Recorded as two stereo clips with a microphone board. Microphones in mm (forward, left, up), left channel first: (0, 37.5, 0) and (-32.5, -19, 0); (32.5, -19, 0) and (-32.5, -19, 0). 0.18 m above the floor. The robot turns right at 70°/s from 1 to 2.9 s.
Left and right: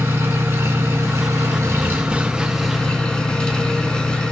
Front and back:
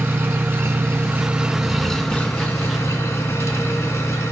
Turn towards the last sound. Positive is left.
turn(degrees=-10)